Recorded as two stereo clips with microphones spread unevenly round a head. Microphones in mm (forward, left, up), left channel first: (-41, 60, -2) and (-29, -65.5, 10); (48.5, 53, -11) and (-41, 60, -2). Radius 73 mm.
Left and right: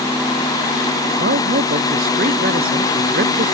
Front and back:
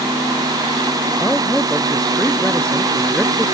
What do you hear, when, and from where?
1.2 s a man speaking: 90° right